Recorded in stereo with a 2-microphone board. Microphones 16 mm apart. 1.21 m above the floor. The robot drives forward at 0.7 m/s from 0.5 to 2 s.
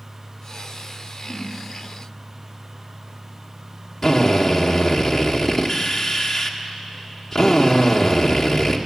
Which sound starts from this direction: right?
A whoosh, at 1.2 s.